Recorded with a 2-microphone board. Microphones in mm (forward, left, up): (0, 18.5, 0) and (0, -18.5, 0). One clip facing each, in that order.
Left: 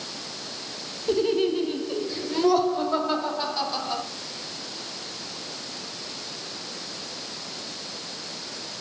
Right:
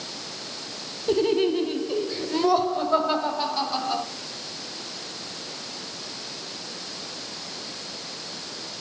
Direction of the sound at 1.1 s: 15° right (ahead or behind).